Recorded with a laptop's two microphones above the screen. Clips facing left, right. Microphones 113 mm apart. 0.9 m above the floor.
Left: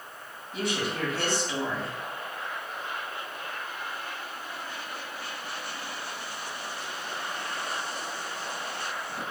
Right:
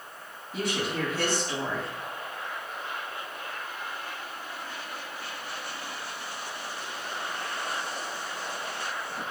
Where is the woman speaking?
Centre (ahead or behind), 2 m.